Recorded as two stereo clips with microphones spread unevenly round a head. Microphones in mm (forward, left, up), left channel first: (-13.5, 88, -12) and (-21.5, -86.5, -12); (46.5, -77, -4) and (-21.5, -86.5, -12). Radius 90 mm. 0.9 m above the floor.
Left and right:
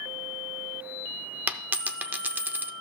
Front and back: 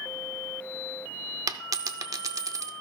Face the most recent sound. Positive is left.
turn(degrees=-170)